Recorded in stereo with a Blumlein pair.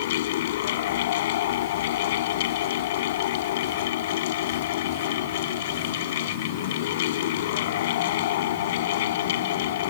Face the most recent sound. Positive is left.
turn(degrees=55)